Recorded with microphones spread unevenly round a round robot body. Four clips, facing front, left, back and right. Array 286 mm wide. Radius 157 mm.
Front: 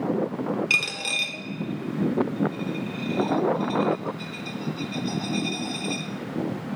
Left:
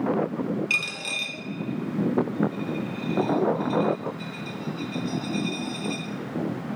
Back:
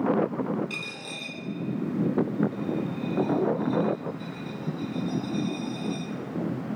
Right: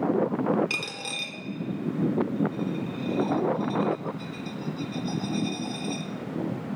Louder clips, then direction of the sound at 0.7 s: Left 2 dB, front 7 dB; 25° right.